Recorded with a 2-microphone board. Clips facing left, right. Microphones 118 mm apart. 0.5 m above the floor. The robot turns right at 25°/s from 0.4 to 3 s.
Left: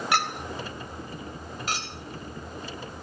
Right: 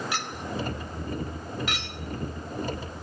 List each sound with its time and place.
0.1 s a clink: 65° left (ahead or behind), 1.5 m; by 3.0 s 5° left (ahead or behind), 1.5 m